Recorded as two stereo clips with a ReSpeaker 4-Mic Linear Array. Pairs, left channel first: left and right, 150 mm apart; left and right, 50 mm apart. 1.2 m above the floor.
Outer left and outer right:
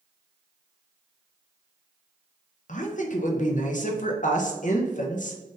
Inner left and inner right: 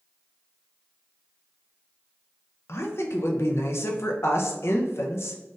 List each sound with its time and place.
2.7 s a woman speaking: 60° left (ahead or behind), 0.6 m